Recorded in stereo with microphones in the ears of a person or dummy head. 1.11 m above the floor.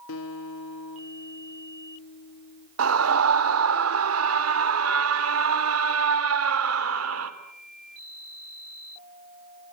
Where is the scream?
80° right, 3 m.